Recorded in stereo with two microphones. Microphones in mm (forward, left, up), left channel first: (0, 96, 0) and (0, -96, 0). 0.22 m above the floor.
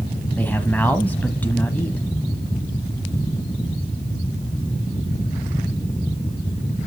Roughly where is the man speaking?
Centre.